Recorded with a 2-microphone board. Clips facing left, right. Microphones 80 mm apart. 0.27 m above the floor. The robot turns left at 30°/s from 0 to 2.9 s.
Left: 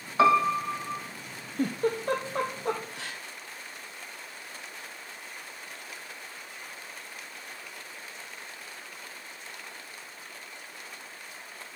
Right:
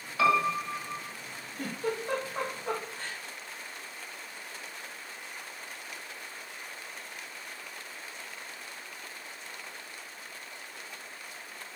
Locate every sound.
0.2 s a piano: 30° left (ahead or behind), 1.6 m; by 1.0 s 40° left (ahead or behind), 1.6 m
1.6 s a giggle: 40° left (ahead or behind), 2 m; by 3.2 s 80° left, 2 m